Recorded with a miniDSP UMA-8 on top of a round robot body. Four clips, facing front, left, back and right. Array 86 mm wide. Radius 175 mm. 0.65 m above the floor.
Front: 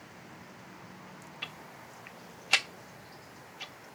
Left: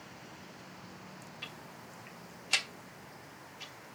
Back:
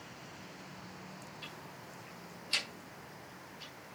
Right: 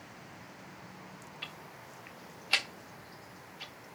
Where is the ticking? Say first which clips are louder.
Even, front 2 dB; 15° right, 1.1 m.